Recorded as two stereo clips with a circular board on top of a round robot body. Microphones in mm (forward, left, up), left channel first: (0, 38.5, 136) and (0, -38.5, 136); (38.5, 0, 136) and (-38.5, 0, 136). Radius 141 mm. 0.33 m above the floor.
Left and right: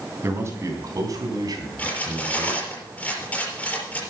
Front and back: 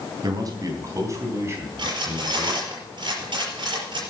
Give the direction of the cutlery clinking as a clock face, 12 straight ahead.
7 o'clock.